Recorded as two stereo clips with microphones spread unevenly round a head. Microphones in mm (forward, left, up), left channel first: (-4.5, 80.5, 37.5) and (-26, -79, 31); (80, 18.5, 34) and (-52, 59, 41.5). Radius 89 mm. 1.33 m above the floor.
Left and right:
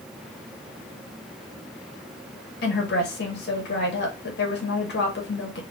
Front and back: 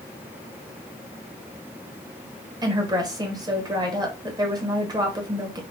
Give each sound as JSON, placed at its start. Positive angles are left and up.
{"t": 2.6, "sound": "a woman speaking", "azimuth_deg": 100, "distance_m": 1.3}